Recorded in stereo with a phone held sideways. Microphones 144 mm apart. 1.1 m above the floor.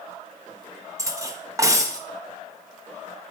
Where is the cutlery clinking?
20° right (ahead or behind), 0.7 m.